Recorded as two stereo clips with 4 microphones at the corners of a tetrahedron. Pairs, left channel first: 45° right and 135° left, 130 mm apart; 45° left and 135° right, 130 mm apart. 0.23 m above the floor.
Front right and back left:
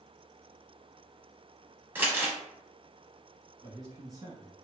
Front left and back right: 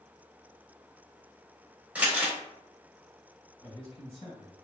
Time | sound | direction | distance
1.9 | crumpling | 165° left | 0.9 m
3.6 | a man speaking | 80° left | 1.7 m